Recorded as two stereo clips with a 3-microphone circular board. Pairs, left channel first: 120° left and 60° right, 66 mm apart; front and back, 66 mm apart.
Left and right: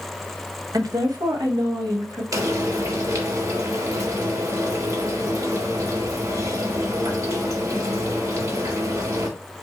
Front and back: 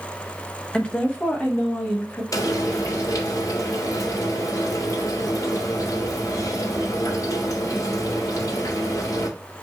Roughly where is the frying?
Ahead right.